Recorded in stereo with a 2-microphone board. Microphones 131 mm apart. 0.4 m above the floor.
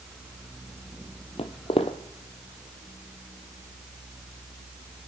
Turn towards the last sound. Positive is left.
turn(degrees=50)  # may be behind; listen again after turning